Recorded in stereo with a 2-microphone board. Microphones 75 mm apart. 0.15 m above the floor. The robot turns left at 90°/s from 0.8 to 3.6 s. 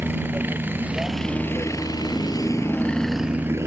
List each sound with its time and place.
0.0 s a helicopter: 150° right; by 3.7 s 40° right